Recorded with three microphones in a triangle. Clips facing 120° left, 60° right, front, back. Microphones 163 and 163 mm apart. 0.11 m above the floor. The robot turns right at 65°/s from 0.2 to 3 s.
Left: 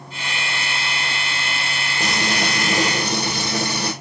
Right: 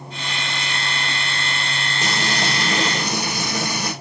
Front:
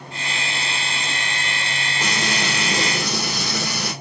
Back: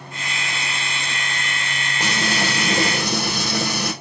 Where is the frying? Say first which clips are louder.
Left 1 dB, back 2 dB; 105° left, 2.0 m; by 3.9 s 170° left, 2.0 m.